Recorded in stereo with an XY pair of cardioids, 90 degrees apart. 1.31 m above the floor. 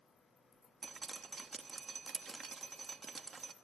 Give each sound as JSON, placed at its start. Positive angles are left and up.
{"t": 0.8, "sound": "dripping", "azimuth_deg": -40, "distance_m": 1.0}